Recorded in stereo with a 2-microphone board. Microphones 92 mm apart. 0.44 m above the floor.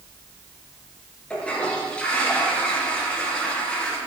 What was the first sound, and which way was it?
A toilet flushing, 10° left (ahead or behind).